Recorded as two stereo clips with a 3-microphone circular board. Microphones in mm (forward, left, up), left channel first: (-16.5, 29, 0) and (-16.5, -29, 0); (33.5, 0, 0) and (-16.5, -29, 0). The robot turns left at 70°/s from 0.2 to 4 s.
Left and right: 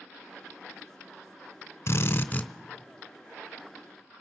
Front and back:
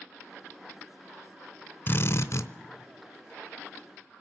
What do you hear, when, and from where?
1.9 s a drill: 70° left, 0.7 m; by 2.5 s 25° left, 0.7 m